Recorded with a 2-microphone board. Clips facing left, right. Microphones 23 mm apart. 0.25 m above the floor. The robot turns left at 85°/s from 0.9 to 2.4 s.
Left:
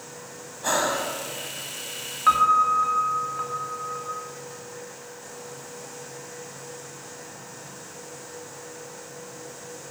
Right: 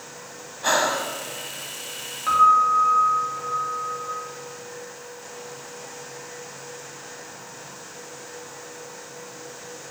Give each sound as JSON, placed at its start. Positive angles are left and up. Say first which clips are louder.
{"t": 0.6, "sound": "breathing", "louder": "right 3 dB", "side_deg": -30, "distance_m": 0.6}
{"t": 2.3, "sound": "a piano", "louder": "right 2 dB", "side_deg": 35, "distance_m": 0.7}